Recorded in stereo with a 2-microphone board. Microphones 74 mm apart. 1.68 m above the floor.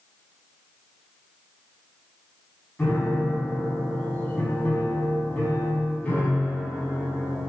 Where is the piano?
15° left (ahead or behind), 5.5 m.